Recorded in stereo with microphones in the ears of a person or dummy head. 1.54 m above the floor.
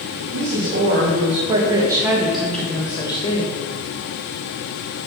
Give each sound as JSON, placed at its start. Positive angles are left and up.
{"t": 0.3, "sound": "a woman speaking", "side_deg": -55, "distance_m": 2.0}